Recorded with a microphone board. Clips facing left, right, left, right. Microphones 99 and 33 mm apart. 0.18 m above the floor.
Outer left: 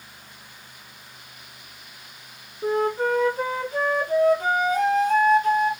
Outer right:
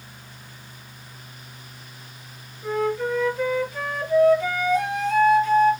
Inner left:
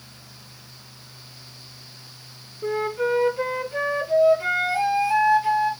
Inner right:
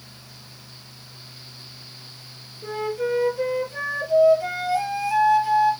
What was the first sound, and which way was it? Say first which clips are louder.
A flute: outer left 2 dB, inner left 2 dB; 50° left (ahead or behind).